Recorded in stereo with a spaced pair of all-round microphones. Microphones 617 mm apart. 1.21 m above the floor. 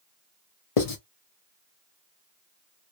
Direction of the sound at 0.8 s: 60° left (ahead or behind).